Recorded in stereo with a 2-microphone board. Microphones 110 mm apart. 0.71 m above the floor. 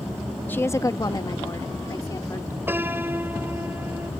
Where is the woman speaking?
15° left (ahead or behind); by 2.6 s 30° left (ahead or behind).